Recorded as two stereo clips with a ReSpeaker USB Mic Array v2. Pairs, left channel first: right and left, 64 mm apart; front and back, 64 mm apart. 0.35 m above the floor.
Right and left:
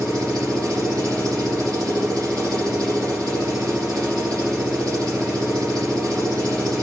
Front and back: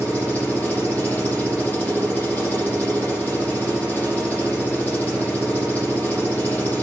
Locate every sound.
0.0 s an engine running: 70° left, 6 m